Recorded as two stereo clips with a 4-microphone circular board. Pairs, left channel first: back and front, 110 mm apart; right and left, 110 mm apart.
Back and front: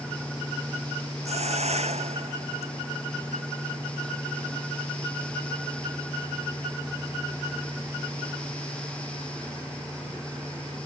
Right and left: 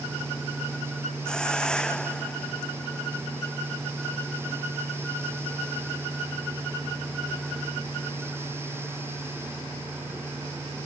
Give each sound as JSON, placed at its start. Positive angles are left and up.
{"t": 1.2, "sound": "a hiss", "azimuth_deg": -10}